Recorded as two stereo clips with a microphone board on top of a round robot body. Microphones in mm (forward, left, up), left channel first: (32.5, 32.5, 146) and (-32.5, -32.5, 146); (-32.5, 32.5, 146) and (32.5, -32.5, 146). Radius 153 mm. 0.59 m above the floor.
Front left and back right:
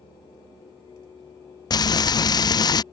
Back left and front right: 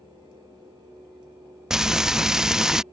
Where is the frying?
40° left.